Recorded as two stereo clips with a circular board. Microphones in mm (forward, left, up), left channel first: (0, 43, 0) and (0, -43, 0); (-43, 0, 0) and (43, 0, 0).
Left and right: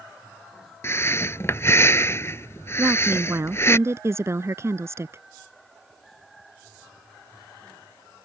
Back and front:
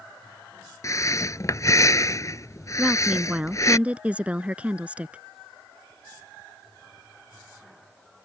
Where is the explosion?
No explosion in this recording.